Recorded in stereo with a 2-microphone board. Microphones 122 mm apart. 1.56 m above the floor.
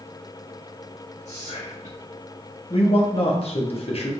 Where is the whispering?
70° left (ahead or behind), 0.6 m.